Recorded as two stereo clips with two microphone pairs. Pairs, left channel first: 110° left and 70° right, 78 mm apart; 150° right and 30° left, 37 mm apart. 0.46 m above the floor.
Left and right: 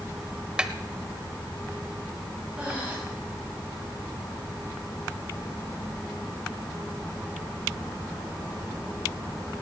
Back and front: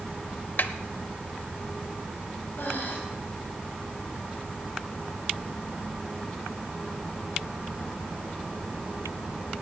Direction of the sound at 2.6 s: 145° right.